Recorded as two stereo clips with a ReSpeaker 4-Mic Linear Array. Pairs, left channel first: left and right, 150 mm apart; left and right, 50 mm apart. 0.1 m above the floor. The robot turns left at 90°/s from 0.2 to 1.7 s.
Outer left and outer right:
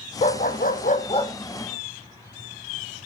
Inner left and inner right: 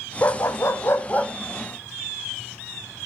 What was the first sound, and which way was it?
A dog barking, 130° left.